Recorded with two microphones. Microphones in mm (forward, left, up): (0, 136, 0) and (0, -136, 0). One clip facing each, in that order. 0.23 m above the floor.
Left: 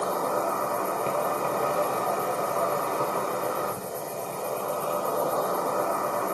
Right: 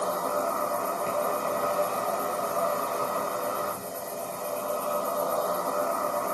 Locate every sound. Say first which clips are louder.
0.0 s an insect: left 2 dB; 75° left (ahead or behind), 2.5 m